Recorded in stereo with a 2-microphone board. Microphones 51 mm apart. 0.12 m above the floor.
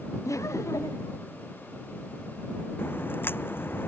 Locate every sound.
0.2 s laughter: 75° left (ahead or behind)
2.8 s a crack: 45° left (ahead or behind)